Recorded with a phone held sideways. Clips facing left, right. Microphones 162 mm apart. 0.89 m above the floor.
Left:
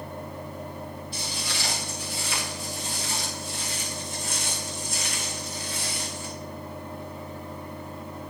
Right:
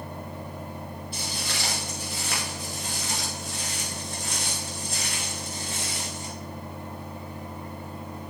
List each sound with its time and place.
0.0 s a fan: 40° right (ahead or behind), 4 m
1.1 s footsteps: 55° right (ahead or behind), 4.5 m; by 6.3 s 35° right (ahead or behind), 3 m